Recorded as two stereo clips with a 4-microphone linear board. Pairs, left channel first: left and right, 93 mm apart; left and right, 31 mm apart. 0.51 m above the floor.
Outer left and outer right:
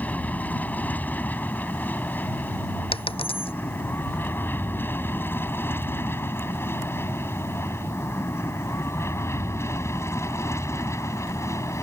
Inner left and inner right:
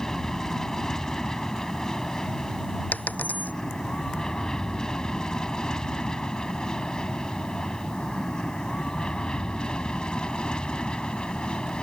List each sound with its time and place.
0.0 s an aircraft: 15° left (ahead or behind); by 11.8 s 30° left (ahead or behind)
2.9 s a dropped coin: 75° left (ahead or behind)